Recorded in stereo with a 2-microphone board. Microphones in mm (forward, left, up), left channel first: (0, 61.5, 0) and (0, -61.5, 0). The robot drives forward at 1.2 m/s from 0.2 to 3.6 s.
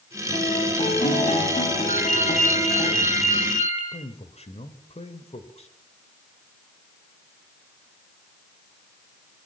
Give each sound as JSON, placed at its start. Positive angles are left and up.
{"t": 0.3, "sound": "a guitar", "side_deg": 65, "distance_m": 9.0}
{"t": 1.9, "sound": "a ringtone", "side_deg": 85, "distance_m": 8.5}
{"t": 3.9, "sound": "a man speaking", "side_deg": 65, "distance_m": 3.0}